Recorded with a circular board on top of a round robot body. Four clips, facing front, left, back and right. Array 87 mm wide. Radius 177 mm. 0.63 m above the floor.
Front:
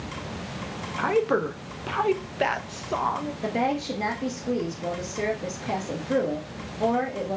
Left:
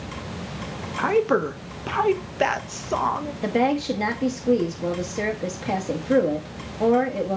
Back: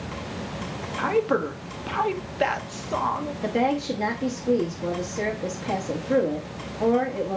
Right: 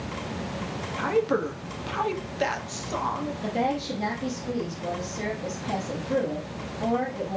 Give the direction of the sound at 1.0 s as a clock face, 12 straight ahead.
9 o'clock.